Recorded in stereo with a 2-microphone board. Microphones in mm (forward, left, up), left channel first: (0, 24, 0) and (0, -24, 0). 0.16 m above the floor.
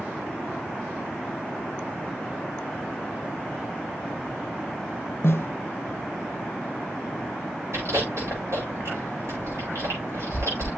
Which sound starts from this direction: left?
A snare drum, at 5.2 s.